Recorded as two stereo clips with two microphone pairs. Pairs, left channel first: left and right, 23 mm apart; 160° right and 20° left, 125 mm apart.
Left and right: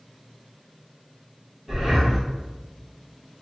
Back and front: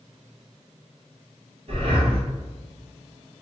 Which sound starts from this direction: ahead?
Breathing, at 1.7 s.